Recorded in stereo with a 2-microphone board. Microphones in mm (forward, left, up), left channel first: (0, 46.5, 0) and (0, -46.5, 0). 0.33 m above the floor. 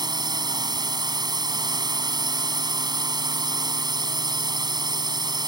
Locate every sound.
0.0 s a drone: 50° right (ahead or behind)